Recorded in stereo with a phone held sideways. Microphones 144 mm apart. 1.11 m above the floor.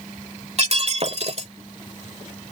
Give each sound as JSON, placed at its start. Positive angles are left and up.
{"t": 0.6, "sound": "breaking glass", "side_deg": -50}